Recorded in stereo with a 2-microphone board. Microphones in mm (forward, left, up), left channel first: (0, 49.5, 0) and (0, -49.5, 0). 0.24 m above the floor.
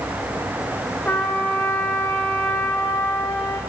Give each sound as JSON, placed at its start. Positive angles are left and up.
{"t": 1.1, "sound": "a trumpet", "side_deg": 15, "distance_m": 6.0}